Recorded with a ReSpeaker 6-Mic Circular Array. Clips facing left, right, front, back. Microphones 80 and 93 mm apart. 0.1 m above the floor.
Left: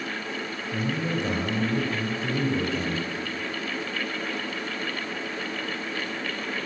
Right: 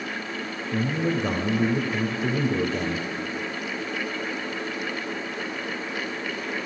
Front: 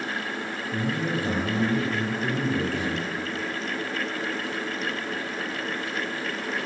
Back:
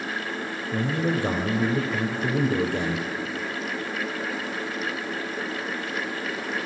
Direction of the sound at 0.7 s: 120° right.